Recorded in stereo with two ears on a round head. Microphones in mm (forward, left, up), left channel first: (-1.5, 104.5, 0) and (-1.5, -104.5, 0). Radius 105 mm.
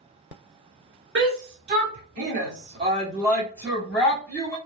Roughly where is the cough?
I don't hear a cough.